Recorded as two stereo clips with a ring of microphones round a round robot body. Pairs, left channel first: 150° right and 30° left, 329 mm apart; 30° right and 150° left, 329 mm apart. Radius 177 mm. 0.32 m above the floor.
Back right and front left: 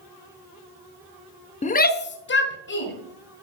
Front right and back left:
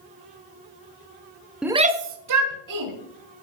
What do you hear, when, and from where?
1.6 s a shout: 125° right, 0.8 m; by 2.9 s 155° left, 1.8 m